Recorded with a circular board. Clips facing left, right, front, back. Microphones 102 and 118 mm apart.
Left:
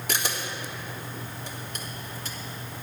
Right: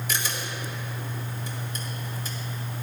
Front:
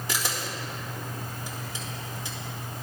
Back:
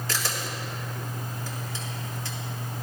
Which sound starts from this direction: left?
A camera shutter, at 0.1 s.